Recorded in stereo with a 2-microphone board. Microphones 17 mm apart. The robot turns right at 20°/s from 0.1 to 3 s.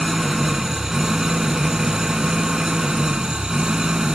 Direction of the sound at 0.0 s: 155° right.